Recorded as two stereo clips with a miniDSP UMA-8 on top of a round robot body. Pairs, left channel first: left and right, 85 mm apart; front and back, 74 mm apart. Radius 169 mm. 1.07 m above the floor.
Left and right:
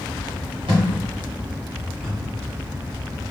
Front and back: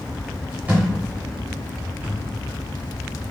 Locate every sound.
0.7 s a thud: 110° right, 0.8 m